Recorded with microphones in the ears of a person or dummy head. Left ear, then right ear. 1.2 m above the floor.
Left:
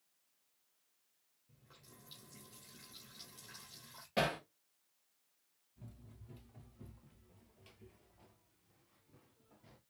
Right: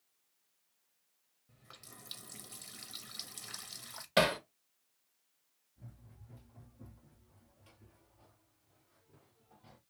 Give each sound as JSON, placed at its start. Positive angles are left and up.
{"t": 1.5, "sound": "a running tap", "side_deg": -50, "distance_m": 0.9}
{"t": 4.2, "sound": "hammering", "side_deg": -40, "distance_m": 1.0}
{"t": 5.8, "sound": "running footsteps", "side_deg": 55, "distance_m": 2.0}